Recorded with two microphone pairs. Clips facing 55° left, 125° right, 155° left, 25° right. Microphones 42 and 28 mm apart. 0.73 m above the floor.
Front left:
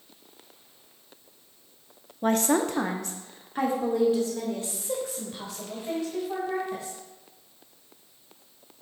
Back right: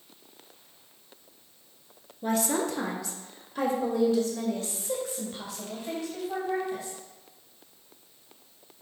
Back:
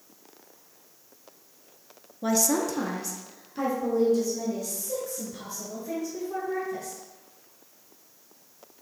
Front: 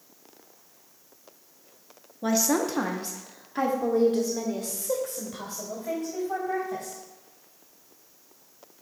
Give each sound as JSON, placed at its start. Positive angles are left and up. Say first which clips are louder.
{"t": 2.2, "sound": "a woman speaking", "louder": "front left 4 dB, front 1 dB", "azimuth_deg": 55, "distance_m": 0.7}